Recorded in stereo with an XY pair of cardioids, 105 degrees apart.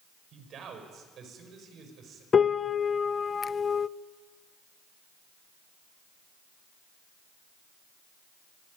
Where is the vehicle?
I don't hear a vehicle.